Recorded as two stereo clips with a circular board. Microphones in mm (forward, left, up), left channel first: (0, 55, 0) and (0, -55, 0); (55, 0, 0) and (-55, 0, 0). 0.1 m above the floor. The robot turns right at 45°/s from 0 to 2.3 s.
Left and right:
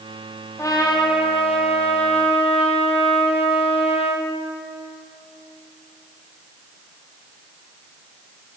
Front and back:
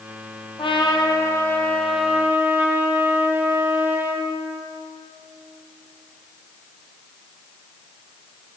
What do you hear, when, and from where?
0.6 s a trumpet: 30° left, 1.6 m; by 4.3 s 110° left, 1.6 m